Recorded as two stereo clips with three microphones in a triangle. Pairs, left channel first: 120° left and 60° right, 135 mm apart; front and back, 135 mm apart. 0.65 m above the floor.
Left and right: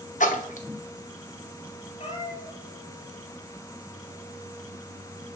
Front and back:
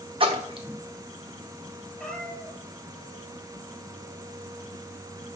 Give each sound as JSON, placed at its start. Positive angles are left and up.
{"t": 0.2, "sound": "a splash", "azimuth_deg": 135, "distance_m": 0.6}
{"t": 2.0, "sound": "a cat meowing", "azimuth_deg": 80, "distance_m": 1.1}